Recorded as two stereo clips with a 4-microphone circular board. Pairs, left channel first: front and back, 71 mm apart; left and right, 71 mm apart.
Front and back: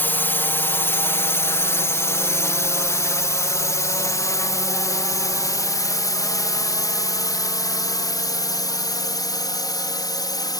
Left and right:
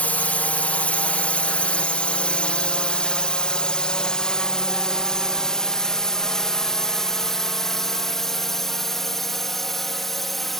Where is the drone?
40° left; by 10.6 s 5° left.